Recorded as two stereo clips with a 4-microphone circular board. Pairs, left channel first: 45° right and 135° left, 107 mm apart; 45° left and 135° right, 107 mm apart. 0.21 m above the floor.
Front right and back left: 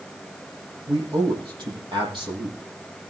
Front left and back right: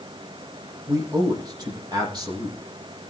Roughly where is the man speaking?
Behind.